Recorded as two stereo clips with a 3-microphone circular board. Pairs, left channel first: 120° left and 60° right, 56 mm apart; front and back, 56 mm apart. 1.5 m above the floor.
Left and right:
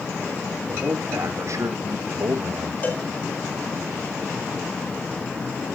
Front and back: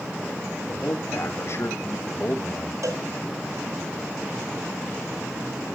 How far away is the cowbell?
About 4.5 m.